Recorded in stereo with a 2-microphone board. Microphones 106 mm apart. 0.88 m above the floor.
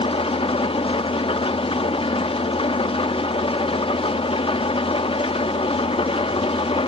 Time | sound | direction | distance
0.0 | an engine running | 60° left (ahead or behind) | 0.9 m